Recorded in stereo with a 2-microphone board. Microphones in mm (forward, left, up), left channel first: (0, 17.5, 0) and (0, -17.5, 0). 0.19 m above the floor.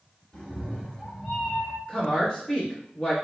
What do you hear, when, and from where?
0.3 s a cat meowing: 20° left (ahead or behind), 1.7 m; by 1.8 s 15° left (ahead or behind), 1.0 m
1.9 s a woman speaking: 25° left (ahead or behind), 1.8 m